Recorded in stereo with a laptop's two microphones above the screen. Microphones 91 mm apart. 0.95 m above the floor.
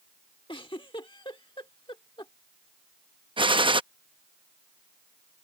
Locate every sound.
0.5 s a giggle: 70° left (ahead or behind)
3.4 s a gunshot: 70° right (ahead or behind)